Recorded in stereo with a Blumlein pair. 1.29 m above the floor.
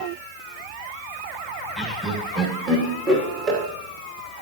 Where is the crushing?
I don't hear crushing.